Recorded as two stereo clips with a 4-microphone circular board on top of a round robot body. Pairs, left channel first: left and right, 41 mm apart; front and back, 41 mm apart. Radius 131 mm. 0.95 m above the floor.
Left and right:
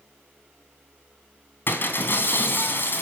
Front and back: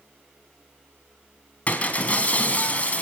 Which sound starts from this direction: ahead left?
Breaking glass, at 1.7 s.